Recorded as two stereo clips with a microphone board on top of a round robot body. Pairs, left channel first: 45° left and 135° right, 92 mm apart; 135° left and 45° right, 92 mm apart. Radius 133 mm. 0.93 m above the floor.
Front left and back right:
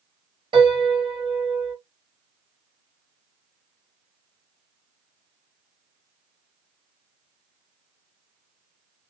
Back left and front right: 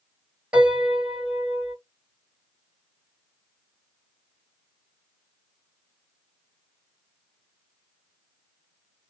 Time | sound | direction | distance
0.5 | a piano | 125° right | 3 m